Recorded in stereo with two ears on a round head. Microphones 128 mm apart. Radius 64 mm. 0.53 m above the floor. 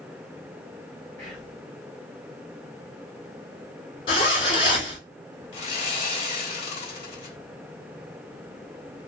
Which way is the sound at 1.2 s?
5° left (ahead or behind).